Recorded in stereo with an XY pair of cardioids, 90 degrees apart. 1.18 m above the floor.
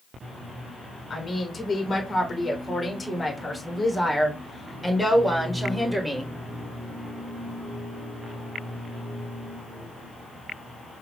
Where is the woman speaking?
35° left, 3.5 m; by 6.3 s 10° right, 4 m.